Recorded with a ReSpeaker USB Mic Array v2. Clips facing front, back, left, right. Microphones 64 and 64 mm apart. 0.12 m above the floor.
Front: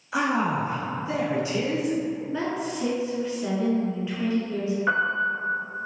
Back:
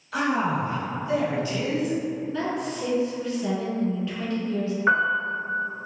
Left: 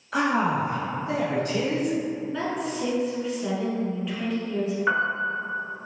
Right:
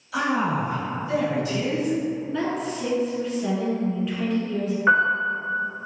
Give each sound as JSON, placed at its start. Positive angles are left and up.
{"t": 0.1, "sound": "a man speaking", "azimuth_deg": 70, "distance_m": 1.6}
{"t": 2.3, "sound": "a woman speaking", "azimuth_deg": 0, "distance_m": 1.3}
{"t": 4.9, "sound": "a piano", "azimuth_deg": -150, "distance_m": 0.8}